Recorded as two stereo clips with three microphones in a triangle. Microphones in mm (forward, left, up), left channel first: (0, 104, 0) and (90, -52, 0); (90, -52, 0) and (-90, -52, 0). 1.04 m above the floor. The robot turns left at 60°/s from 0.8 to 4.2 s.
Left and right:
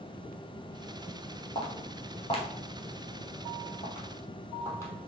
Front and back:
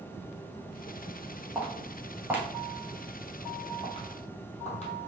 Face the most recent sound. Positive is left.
turn(degrees=45)